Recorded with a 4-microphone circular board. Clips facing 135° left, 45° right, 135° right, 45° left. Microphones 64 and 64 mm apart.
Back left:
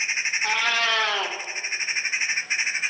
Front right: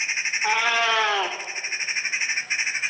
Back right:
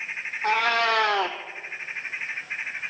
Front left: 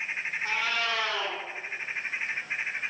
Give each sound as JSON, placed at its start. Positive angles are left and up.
{"t": 0.4, "sound": "a cat meowing", "azimuth_deg": -120, "distance_m": 1.5}